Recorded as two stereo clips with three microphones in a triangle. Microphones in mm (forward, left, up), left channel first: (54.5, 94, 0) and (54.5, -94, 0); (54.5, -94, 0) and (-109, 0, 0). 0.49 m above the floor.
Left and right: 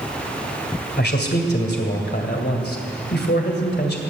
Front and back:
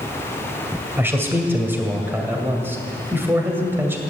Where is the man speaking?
75° left, 2.5 m.